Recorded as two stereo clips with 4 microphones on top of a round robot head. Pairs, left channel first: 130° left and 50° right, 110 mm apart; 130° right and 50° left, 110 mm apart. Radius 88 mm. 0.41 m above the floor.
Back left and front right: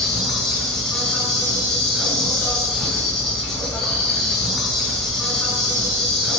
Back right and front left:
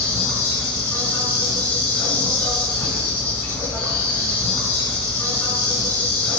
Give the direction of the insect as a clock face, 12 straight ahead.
5 o'clock.